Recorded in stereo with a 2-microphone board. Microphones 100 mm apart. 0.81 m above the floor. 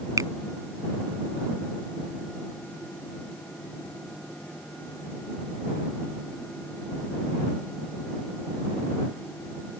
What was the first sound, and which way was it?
A finger snap, 35° right (ahead or behind).